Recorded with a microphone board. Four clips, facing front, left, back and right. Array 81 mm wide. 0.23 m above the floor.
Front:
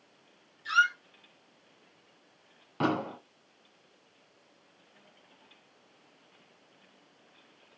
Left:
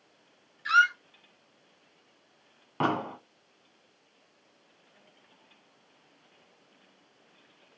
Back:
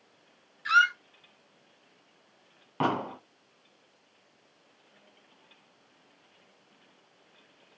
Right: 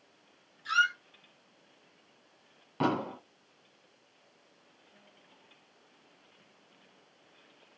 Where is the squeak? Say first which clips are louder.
Left 5 dB, back 3 dB; 140° left, 0.6 m.